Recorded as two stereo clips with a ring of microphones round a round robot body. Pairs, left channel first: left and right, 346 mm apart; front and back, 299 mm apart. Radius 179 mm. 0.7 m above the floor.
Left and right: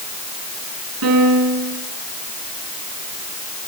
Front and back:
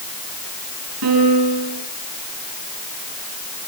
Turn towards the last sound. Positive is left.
turn(degrees=-135)